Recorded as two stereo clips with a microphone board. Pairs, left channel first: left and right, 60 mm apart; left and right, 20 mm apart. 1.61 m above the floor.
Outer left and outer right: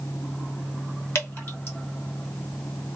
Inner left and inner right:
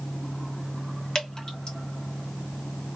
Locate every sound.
1.1 s dripping: 50° left (ahead or behind), 2 m